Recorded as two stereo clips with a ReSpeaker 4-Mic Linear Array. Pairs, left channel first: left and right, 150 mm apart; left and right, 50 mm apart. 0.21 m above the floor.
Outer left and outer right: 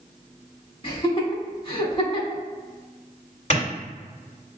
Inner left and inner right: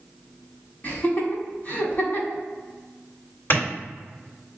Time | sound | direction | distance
0.8 | laughter | 40° left (ahead or behind) | 1.2 m
3.5 | a clap | 45° left (ahead or behind) | 1.8 m